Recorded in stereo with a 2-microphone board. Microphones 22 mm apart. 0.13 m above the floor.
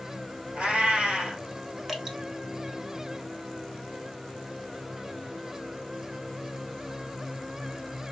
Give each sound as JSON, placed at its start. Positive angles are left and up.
{"t": 0.6, "sound": "a cat meowing", "side_deg": -65, "distance_m": 1.3}
{"t": 1.9, "sound": "dripping", "side_deg": -15, "distance_m": 0.6}